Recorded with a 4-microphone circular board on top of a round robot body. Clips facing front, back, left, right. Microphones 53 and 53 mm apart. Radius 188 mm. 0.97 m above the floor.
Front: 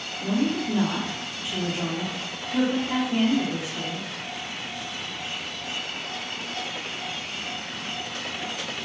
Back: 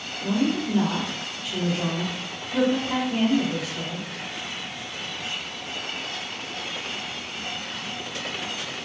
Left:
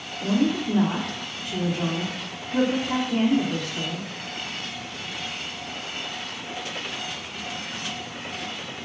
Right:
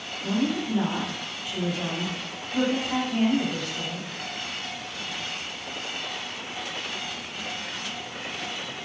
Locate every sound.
0.2 s a woman speaking: 75° left, 1.0 m